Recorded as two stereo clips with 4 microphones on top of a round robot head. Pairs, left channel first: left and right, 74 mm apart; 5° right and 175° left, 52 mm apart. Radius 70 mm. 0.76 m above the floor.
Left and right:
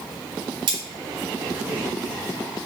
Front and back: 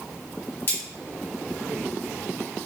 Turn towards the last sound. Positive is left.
turn(degrees=-65)